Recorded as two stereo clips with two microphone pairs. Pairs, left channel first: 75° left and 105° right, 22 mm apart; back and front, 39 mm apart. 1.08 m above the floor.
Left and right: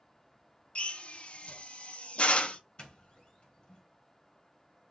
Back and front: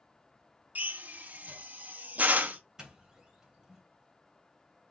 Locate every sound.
0.8 s a drill: 45° left, 0.6 m
2.8 s a doorbell: 60° left, 1.4 m